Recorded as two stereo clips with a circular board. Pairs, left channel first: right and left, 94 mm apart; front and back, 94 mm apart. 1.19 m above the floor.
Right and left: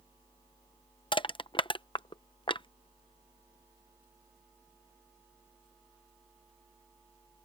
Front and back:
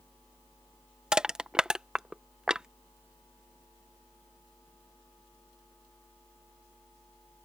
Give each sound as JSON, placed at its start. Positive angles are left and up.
{"t": 1.1, "sound": "crushing", "azimuth_deg": -100}